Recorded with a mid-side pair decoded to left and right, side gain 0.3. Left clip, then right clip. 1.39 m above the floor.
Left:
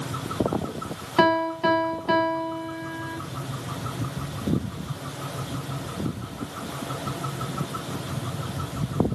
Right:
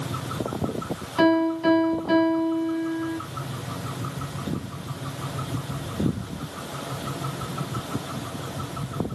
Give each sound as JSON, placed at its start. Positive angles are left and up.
{"t": 1.2, "sound": "a piano", "azimuth_deg": 65, "distance_m": 1.3}